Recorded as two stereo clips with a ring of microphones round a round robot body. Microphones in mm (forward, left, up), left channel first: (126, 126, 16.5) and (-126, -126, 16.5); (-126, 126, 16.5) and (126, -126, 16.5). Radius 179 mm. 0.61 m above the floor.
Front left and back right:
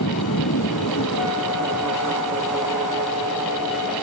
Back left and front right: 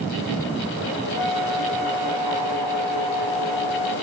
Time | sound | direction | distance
1.1 | a flute | 10° right | 3 m